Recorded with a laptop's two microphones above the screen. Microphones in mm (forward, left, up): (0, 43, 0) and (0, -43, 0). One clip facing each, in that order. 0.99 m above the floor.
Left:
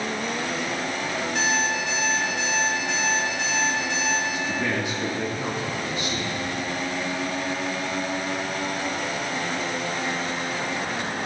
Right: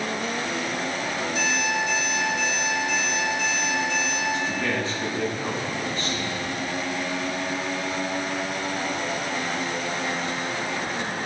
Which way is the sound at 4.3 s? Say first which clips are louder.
Even; 15° left (ahead or behind).